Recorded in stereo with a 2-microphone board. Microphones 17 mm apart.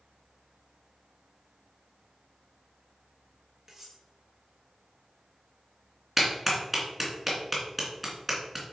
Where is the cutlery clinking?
15° right (ahead or behind), 3 m.